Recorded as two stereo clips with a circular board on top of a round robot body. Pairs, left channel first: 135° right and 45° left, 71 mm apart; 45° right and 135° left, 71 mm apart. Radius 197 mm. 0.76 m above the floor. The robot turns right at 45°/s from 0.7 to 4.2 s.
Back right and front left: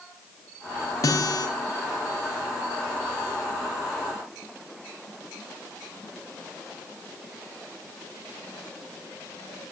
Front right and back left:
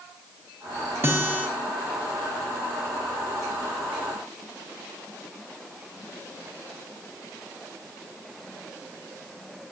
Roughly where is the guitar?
Behind.